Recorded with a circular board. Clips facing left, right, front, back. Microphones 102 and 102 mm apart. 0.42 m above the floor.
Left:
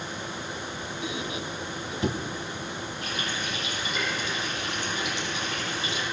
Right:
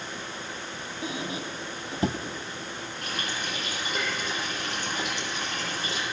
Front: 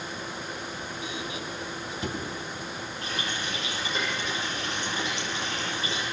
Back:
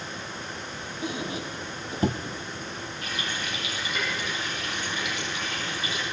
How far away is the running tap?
About 9.5 m.